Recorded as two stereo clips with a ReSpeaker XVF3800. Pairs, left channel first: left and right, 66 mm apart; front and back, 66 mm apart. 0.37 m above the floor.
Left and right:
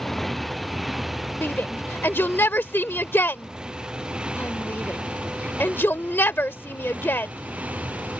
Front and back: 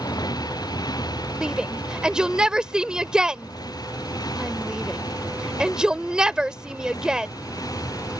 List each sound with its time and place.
0.0 s a motorcycle: 5° left; by 8.2 s 20° right
1.4 s a shout: 110° left